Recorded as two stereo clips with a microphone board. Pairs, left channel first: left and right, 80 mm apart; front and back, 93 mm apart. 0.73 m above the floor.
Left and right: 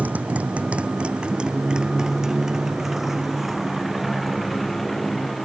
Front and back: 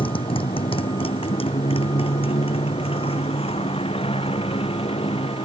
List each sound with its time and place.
0.0 s a motorcycle: 20° right; by 5.5 s straight ahead